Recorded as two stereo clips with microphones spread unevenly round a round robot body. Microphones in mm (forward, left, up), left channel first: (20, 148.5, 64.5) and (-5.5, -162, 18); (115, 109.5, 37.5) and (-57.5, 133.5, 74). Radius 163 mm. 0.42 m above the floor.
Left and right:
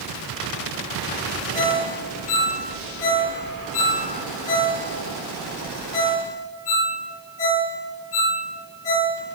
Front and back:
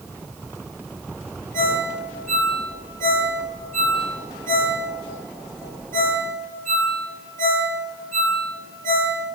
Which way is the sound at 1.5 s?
130° left.